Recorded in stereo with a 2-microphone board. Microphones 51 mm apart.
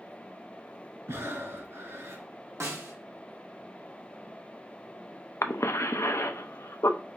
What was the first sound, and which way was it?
Breathing, 65° right (ahead or behind).